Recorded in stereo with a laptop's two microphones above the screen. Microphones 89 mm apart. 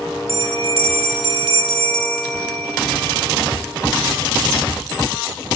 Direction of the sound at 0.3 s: 75° right (ahead or behind).